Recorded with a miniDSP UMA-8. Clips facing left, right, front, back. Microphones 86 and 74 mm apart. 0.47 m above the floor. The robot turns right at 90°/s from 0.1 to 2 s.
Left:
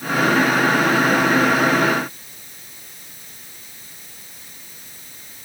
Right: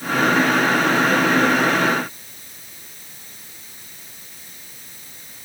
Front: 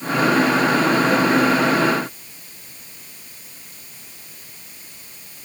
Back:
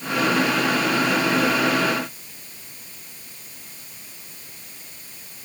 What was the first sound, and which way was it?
Only background noise.